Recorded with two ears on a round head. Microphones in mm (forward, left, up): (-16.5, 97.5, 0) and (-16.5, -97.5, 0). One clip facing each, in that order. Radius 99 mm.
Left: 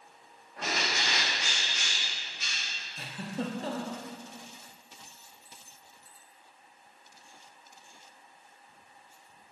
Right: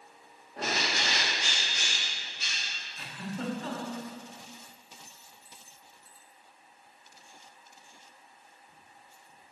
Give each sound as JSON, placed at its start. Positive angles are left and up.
{"t": 0.6, "sound": "a bird", "side_deg": -30, "distance_m": 1.2}
{"t": 3.0, "sound": "a giggle", "side_deg": 25, "distance_m": 0.8}